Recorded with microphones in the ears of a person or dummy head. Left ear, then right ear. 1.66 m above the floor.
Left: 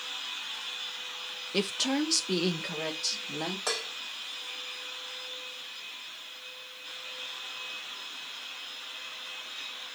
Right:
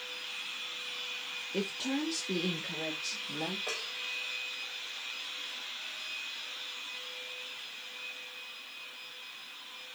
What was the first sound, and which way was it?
A woman speaking, 40° left (ahead or behind).